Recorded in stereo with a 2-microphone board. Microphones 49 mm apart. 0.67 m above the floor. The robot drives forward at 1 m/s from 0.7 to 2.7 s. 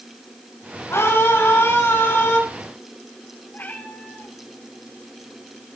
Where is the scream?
65° left (ahead or behind), 7 m; by 2.4 s 55° left (ahead or behind), 7.5 m.